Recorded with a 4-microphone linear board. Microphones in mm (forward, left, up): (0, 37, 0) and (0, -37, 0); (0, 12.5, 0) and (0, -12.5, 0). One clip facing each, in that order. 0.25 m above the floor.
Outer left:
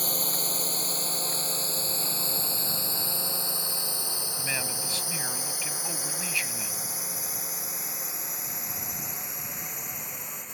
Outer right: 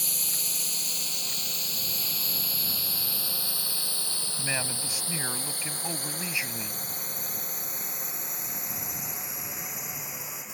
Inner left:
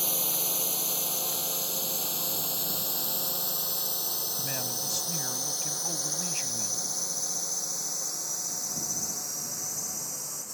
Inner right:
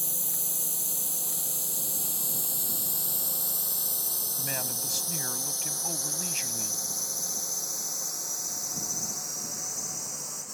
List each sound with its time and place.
0.0 s a drone: 45° left (ahead or behind); by 10.6 s 5° right (ahead or behind)
4.4 s a man speaking: 15° right (ahead or behind)